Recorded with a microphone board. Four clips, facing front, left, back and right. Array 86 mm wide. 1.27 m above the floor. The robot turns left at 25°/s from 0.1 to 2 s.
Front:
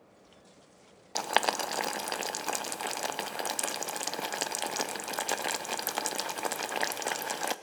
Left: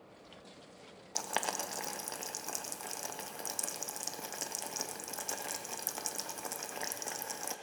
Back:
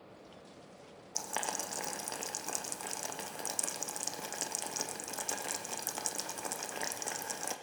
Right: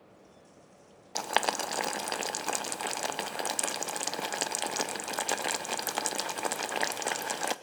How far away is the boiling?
About 0.7 m.